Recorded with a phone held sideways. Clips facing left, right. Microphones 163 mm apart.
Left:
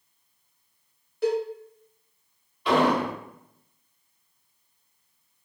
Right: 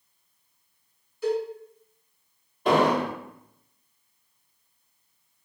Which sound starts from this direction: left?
A cowbell, at 1.2 s.